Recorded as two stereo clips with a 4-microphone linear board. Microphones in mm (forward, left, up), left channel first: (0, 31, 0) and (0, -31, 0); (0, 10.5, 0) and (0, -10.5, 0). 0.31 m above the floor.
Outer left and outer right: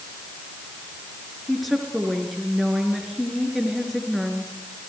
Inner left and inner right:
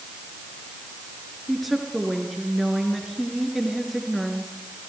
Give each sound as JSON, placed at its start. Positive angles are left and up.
{"t": 1.5, "sound": "a woman speaking", "side_deg": 0, "distance_m": 4.5}